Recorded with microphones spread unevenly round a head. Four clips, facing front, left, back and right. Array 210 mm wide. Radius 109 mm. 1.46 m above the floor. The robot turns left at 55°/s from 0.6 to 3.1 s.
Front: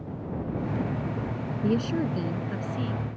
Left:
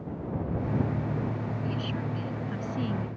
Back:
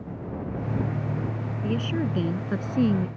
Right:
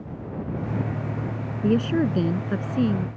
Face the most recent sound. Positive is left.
turn(degrees=-155)